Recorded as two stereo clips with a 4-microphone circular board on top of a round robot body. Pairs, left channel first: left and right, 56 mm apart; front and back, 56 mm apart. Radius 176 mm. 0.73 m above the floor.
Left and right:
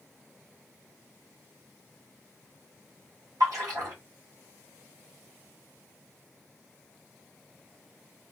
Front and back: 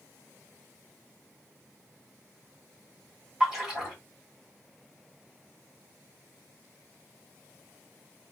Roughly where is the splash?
Right.